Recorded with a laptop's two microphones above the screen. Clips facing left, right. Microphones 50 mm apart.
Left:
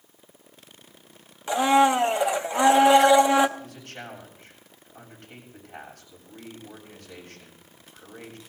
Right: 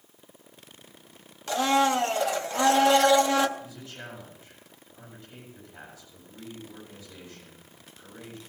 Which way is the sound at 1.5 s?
20° left (ahead or behind).